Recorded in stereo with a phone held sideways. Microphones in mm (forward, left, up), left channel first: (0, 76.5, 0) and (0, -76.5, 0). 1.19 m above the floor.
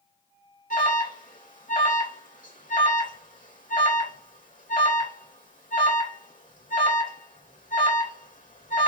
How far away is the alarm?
About 3.5 m.